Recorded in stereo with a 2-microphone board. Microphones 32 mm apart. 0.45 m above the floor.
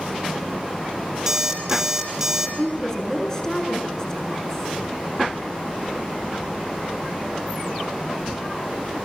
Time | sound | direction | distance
1.3 | an alarm clock | 15° right (ahead or behind) | 5.5 m
2.6 | a woman speaking | 20° left (ahead or behind) | 6.5 m